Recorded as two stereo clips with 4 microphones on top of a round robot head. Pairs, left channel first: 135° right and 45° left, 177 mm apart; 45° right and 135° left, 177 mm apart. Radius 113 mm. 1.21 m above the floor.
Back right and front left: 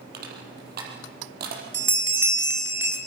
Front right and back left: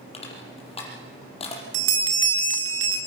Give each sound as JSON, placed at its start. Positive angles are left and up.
{"t": 0.1, "sound": "crushing", "azimuth_deg": 10, "distance_m": 6.0}
{"t": 1.7, "sound": "a bell", "azimuth_deg": 125, "distance_m": 2.0}